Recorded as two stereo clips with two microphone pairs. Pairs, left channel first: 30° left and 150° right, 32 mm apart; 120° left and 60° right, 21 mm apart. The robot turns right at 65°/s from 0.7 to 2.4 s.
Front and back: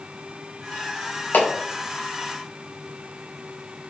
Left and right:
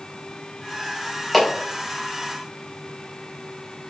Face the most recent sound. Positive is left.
turn(degrees=115)